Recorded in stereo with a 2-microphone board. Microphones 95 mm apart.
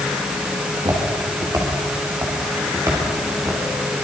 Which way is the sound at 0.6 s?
50° right (ahead or behind).